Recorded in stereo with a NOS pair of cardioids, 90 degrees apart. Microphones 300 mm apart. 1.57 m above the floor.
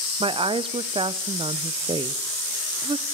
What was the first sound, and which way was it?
A woman speaking, 20° right.